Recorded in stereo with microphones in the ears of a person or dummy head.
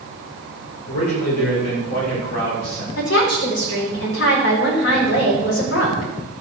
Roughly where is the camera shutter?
No camera shutter in this recording.